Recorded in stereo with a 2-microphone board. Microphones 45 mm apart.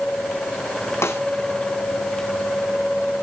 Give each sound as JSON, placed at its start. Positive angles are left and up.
{"t": 1.0, "sound": "a snare drum", "side_deg": 80, "distance_m": 1.9}